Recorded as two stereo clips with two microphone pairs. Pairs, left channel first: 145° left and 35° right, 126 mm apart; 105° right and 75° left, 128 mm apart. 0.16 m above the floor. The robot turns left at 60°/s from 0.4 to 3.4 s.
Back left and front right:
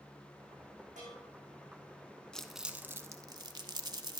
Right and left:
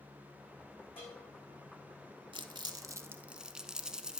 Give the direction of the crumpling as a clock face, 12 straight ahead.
10 o'clock.